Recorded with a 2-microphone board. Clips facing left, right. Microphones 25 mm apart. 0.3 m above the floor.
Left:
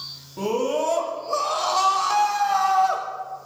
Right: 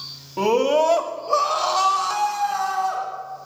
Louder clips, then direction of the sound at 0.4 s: Right 6 dB; 50° right (ahead or behind).